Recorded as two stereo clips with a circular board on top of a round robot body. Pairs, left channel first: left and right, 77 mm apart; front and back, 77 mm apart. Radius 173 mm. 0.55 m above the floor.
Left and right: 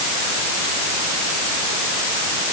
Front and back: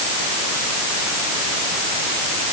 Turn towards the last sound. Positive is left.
No sound to turn to.